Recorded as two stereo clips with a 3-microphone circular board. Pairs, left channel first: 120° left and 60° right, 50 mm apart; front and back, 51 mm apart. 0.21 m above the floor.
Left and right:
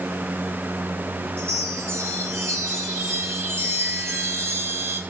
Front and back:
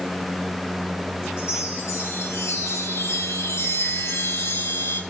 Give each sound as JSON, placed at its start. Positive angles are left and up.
{"t": 1.4, "sound": "a chime", "azimuth_deg": -30, "distance_m": 4.0}